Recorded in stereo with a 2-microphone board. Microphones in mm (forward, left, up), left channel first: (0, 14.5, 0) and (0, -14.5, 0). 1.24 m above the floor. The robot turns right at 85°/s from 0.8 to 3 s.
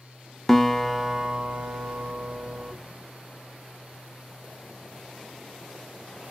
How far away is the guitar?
About 0.7 m.